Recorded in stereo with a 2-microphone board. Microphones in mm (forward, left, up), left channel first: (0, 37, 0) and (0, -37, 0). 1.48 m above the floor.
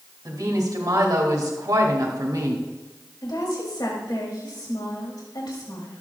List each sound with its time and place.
0.2 s a woman speaking: 60° right (ahead or behind), 2.5 m
3.2 s a woman speaking: 65° left (ahead or behind), 3 m